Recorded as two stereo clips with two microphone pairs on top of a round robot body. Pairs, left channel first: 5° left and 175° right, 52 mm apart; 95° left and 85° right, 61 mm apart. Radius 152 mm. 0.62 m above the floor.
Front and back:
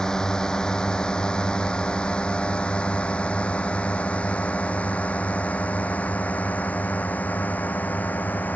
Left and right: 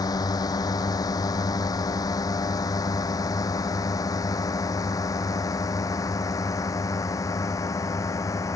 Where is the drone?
80° left; by 8.6 s 60° left.